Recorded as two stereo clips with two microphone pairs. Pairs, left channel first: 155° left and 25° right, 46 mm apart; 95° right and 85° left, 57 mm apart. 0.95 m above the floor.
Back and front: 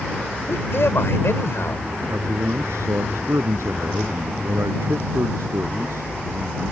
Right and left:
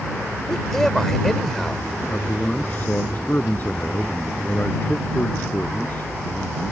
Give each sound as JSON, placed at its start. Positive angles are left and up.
{"t": 0.5, "sound": "a man speaking", "azimuth_deg": 180}
{"t": 2.1, "sound": "a man speaking", "azimuth_deg": -35}